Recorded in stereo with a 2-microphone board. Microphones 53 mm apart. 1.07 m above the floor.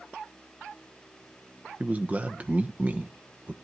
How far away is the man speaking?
About 0.9 m.